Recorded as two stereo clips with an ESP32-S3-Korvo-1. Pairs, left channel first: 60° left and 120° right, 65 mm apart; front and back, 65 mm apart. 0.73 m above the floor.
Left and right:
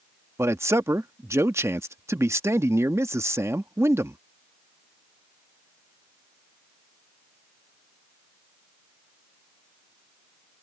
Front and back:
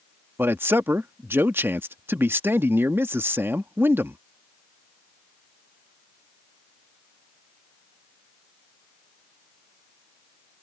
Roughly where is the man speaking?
Behind right.